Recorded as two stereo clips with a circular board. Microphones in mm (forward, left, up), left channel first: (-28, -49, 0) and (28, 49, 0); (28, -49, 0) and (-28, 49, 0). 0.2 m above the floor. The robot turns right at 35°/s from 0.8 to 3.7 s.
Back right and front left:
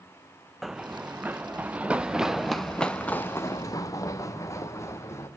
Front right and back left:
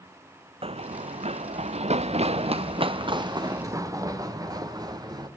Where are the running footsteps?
150° left, 0.6 m; by 5.3 s 175° left, 2.5 m.